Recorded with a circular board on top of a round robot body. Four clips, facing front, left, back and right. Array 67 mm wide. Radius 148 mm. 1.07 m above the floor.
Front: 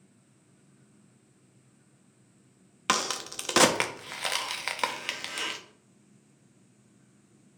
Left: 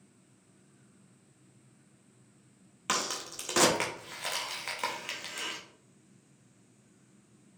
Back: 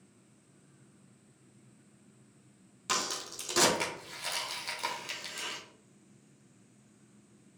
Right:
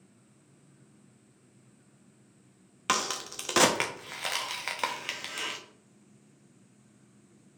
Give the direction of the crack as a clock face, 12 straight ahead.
1 o'clock.